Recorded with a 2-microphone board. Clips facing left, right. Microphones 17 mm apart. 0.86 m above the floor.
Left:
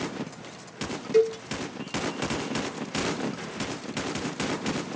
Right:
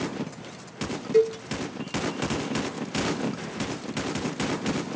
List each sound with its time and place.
1.1 s a cowbell: 15° left (ahead or behind), 0.9 m